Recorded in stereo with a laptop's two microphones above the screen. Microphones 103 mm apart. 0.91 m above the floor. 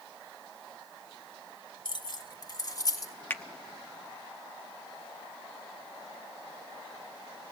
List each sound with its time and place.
1.9 s keys jangling: 50° left (ahead or behind), 2.0 m; by 3.1 s 35° left (ahead or behind), 3.5 m
3.3 s a finger snap: 20° left (ahead or behind), 0.9 m